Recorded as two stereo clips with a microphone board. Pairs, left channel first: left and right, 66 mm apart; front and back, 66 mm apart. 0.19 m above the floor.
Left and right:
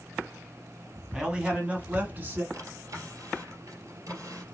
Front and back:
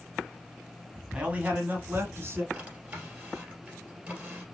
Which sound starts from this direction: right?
A drawer, at 2.5 s.